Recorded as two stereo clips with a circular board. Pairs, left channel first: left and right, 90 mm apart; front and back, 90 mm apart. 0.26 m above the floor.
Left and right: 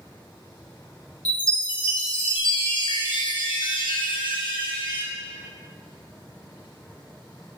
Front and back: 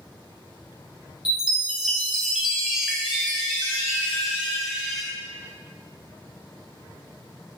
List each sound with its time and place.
1.2 s a chime: 95° left, 1.0 m